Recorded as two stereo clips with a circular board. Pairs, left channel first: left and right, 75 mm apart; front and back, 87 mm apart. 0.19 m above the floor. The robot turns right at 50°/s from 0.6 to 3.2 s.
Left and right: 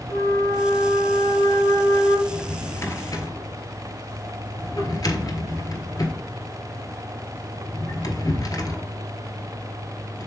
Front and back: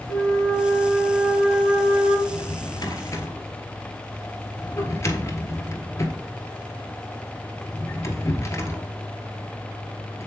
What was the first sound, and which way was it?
A flute, 50° left.